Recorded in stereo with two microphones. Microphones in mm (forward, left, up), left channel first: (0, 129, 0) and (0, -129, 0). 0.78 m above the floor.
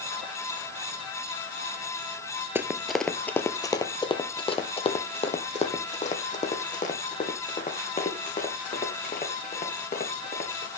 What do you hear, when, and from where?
2.5 s running footsteps: 10° right (ahead or behind), 0.8 m; by 10.7 s 30° left (ahead or behind), 4.5 m